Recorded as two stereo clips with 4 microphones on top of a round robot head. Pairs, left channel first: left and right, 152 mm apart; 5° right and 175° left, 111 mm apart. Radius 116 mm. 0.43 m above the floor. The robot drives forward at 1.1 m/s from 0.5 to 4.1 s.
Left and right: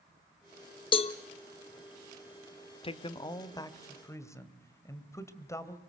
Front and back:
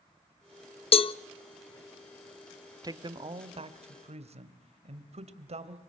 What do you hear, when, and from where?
0.9 s a cowbell: 30° left, 0.7 m; by 1.1 s 45° left, 0.5 m
2.8 s a man speaking: 130° left, 1.2 m; by 5.8 s 160° left, 2 m